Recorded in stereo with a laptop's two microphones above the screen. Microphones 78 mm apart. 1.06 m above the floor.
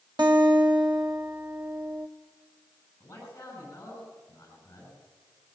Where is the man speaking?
25° left (ahead or behind), 10 m.